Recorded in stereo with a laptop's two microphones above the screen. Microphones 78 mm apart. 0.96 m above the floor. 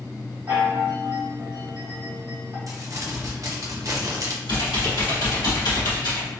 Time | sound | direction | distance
0.5 | a chime | 30° right (ahead or behind) | 1.1 m
2.7 | crumpling | 45° right (ahead or behind) | 0.5 m
4.5 | typing on a keyboard | 60° left (ahead or behind) | 1.1 m